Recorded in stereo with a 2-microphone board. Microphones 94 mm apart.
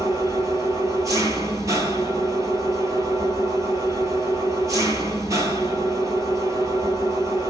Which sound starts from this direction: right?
An engine running, at 0.0 s.